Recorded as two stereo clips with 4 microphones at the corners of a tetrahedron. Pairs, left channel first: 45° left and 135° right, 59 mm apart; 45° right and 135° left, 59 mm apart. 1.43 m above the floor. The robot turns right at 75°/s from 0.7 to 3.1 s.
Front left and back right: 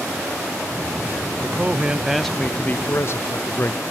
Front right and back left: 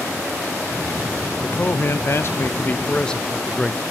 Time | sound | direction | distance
1.4 | a man speaking | 100° right | 0.5 m